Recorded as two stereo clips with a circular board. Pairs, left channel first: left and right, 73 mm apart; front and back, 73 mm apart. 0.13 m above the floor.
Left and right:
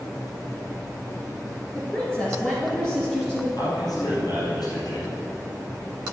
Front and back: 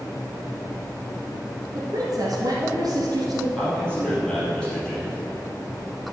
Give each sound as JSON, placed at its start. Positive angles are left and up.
{"t": 1.8, "sound": "a woman speaking", "azimuth_deg": 165, "distance_m": 2.0}
{"t": 3.6, "sound": "a man speaking", "azimuth_deg": 80, "distance_m": 3.5}